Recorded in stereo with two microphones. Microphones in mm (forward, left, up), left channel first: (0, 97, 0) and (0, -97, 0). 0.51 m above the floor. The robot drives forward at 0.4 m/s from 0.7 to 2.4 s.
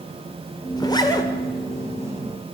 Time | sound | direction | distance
0.8 | a zipper | 20° left (ahead or behind) | 2 m